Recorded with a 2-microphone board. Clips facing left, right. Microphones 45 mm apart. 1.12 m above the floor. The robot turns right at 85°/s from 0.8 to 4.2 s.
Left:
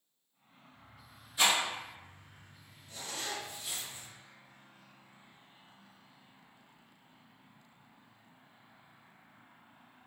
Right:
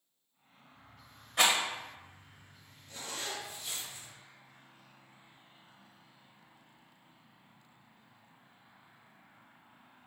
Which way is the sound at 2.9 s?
60° right.